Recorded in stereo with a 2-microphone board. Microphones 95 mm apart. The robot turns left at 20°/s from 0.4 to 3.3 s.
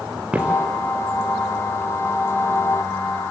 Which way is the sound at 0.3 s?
15° right (ahead or behind).